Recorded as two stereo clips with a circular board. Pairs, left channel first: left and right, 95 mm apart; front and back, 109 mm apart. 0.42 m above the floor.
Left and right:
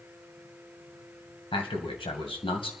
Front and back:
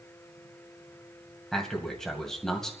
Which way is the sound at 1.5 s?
85° left.